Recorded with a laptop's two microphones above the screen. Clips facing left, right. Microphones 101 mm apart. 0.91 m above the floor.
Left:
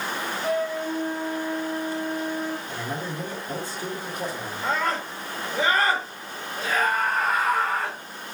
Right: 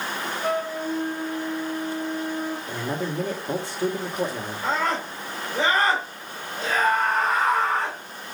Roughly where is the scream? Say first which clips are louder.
Right 1 dB; centre.